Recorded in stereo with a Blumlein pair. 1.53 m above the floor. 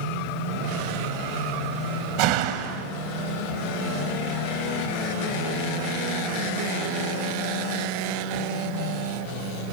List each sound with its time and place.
2.2 s a door slam: 45° right, 1.4 m